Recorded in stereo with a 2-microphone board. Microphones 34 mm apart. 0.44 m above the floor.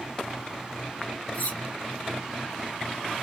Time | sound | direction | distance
1.3 | cutlery clinking | 60° left (ahead or behind) | 0.7 m